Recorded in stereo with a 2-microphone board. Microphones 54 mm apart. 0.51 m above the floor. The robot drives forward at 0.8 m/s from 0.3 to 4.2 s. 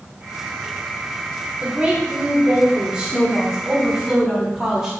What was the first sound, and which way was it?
A woman speaking, 30° right (ahead or behind).